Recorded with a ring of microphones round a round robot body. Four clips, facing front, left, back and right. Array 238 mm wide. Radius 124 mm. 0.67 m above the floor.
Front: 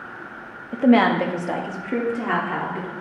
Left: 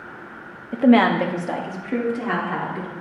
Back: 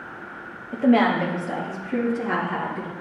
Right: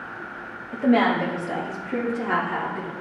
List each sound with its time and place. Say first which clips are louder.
0.7 s a woman speaking: left 4 dB, front 2 dB; 70° left, 0.6 m; by 2.9 s 30° left, 1.9 m